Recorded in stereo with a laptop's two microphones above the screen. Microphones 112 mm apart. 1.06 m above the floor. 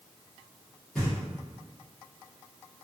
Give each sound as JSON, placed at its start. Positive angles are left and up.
{"t": 0.9, "sound": "knocking", "side_deg": 5, "distance_m": 1.4}